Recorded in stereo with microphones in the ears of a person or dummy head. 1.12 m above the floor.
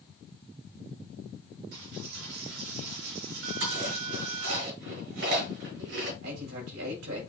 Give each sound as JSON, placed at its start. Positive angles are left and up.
{"t": 1.7, "sound": "a dropped coin", "side_deg": -75, "distance_m": 3.5}
{"t": 3.6, "sound": "chewing", "side_deg": -85, "distance_m": 6.5}
{"t": 6.2, "sound": "a man speaking", "side_deg": -85, "distance_m": 5.0}